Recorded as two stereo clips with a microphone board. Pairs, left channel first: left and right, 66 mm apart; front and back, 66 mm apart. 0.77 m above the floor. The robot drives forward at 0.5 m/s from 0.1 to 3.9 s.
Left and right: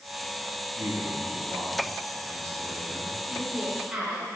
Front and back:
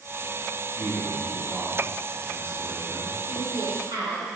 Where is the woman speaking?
175° right, 3 m.